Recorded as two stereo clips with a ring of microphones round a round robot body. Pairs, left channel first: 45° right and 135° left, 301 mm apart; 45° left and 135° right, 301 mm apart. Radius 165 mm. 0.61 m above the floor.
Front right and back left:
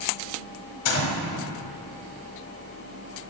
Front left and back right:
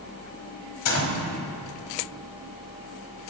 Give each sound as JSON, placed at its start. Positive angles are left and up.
{"t": 0.8, "sound": "a gunshot", "azimuth_deg": 0, "distance_m": 1.8}